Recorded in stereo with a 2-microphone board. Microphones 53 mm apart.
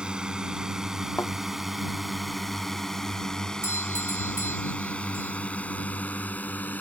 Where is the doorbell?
60° left (ahead or behind).